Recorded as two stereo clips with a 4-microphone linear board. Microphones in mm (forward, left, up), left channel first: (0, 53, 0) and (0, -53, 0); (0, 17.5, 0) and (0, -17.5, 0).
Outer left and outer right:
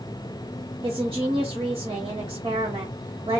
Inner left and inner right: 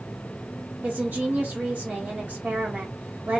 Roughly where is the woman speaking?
Right.